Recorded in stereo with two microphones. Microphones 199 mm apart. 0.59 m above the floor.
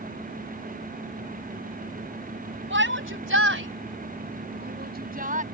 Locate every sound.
2.7 s a shout: 70° right (ahead or behind); by 5.4 s 40° right (ahead or behind)